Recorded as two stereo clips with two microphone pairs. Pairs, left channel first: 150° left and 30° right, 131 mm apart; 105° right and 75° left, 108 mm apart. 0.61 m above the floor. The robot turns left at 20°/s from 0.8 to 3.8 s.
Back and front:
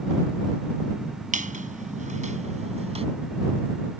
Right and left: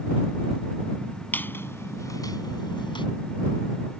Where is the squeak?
35° right; by 3.1 s 70° right.